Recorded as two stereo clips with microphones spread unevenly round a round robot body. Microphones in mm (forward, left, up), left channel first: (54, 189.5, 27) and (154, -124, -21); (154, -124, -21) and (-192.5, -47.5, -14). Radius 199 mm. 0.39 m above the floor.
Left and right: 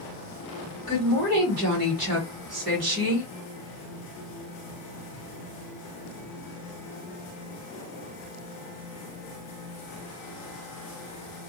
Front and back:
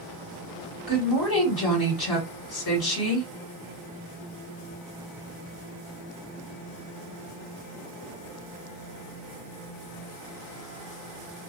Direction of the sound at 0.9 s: 55° right.